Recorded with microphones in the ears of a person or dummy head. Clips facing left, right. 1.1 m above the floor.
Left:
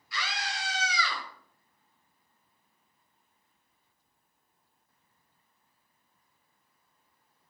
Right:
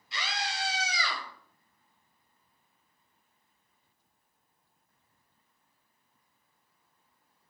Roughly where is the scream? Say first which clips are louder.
Right 1 dB; right.